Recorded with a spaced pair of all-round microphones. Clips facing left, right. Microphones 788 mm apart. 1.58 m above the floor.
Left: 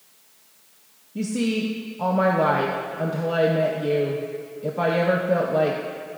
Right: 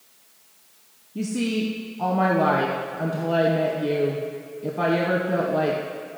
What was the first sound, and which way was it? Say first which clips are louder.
A woman speaking: left 1 dB; 15° left (ahead or behind).